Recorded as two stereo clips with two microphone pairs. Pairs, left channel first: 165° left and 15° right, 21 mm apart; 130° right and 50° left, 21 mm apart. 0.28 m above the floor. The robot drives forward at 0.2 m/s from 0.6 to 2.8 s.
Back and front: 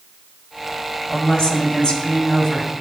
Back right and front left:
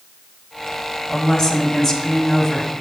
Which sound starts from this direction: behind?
A woman speaking, at 1.1 s.